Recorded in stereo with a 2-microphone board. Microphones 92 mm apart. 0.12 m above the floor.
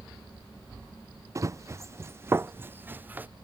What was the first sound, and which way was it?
Running footsteps, 35° right (ahead or behind).